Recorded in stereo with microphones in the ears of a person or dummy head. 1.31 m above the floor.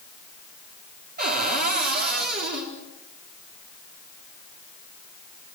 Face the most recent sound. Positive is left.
turn(degrees=-45)  # may be behind; listen again after turning